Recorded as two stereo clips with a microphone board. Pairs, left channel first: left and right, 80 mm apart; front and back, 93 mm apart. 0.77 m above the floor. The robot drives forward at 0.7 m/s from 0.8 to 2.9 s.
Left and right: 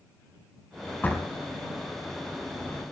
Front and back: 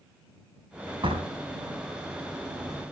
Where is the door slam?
160° left, 4 m.